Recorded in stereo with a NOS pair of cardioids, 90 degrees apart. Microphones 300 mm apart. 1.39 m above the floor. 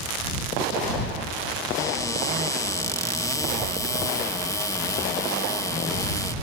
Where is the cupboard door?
10° left.